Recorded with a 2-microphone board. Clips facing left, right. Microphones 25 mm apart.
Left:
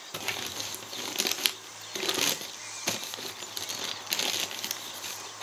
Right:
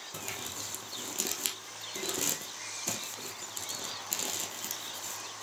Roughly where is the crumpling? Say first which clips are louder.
Left 7 dB; left.